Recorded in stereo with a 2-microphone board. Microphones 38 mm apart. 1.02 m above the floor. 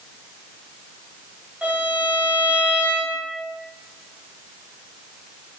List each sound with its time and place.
1.6 s a violin: 30° right (ahead or behind), 0.9 m